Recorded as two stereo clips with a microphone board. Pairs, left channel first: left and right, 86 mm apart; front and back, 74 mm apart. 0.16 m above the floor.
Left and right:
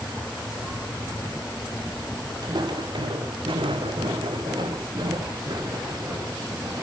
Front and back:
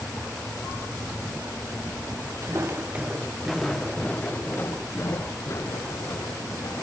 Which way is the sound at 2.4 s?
130° right.